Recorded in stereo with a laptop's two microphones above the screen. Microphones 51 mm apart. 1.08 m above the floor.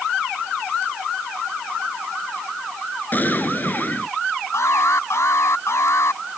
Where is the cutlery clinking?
No cutlery clinking in this recording.